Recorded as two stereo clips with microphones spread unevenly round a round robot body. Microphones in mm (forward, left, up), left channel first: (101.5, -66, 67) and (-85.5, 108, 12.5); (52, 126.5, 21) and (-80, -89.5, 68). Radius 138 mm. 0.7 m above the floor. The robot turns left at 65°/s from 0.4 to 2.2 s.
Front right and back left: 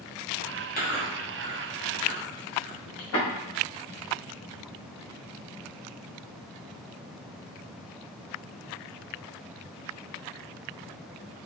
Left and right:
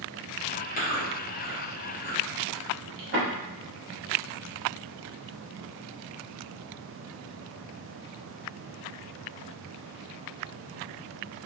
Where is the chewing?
15° left, 1.2 m; by 3.3 s 80° right, 1.2 m.